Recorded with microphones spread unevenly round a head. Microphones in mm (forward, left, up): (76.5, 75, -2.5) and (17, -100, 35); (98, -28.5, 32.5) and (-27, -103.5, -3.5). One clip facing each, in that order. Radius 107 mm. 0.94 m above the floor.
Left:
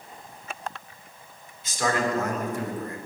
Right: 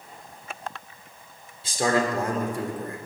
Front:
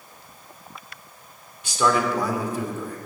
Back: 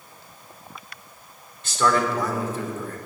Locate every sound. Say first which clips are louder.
1.6 s a man speaking: right 2 dB, even; 50° right, 2.5 m